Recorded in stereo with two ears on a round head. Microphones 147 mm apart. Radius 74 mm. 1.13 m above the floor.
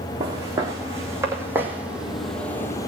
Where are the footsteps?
20° right (ahead or behind), 3.5 m; by 2.9 s 20° left (ahead or behind), 1.2 m.